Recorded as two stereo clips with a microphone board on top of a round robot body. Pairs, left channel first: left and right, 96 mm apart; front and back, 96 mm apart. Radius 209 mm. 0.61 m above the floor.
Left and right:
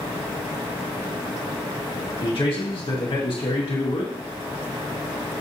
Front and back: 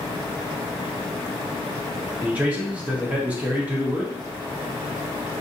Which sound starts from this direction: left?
A man speaking, at 2.2 s.